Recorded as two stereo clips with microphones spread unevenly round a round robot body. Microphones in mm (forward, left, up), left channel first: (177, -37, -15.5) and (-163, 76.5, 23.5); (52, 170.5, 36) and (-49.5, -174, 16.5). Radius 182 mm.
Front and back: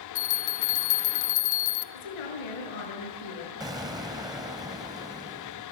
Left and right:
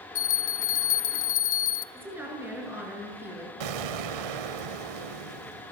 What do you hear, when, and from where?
0.1 s a bell: 15° left, 1.1 m
1.9 s a woman speaking: 20° right, 6.5 m
3.6 s an explosion: 115° right, 1.0 m